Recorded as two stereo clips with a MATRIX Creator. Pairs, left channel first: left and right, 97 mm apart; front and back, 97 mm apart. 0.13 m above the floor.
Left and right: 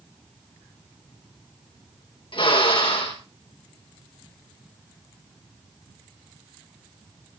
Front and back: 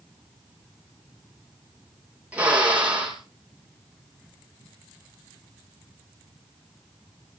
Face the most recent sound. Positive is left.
turn(degrees=105)